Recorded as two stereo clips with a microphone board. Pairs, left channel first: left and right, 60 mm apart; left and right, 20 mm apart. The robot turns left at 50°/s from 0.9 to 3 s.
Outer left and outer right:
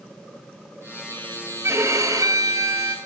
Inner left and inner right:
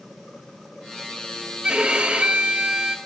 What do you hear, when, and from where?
1.6 s a violin: 55° right, 3 m; by 3.0 s 120° right, 3 m